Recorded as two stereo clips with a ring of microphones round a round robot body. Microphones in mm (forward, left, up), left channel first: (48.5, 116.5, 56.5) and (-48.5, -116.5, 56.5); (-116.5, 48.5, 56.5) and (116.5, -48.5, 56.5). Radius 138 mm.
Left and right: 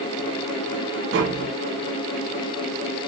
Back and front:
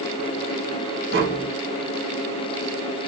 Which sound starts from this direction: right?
Tapping, at 1.1 s.